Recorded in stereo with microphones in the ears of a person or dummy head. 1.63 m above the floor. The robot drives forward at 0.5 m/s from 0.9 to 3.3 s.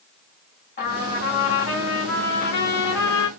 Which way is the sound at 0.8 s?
40° left (ahead or behind).